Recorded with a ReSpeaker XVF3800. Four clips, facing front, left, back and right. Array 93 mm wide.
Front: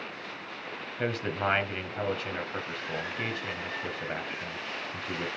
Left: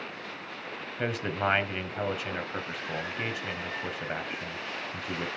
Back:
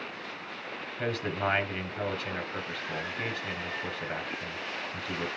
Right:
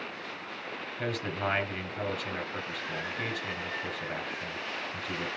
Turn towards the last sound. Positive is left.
turn(degrees=65)